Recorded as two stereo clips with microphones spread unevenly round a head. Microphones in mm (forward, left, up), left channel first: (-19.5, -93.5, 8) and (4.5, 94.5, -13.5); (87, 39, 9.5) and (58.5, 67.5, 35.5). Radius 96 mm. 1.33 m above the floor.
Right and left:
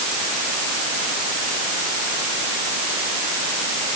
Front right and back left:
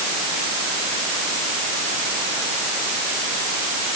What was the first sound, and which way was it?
Only background noise.